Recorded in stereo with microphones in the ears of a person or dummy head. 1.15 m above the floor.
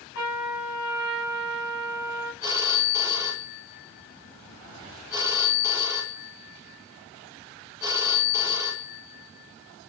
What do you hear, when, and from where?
0.1 s a trumpet: 65° left (ahead or behind), 5.5 m
2.4 s a phone ringing: 15° right (ahead or behind), 3.5 m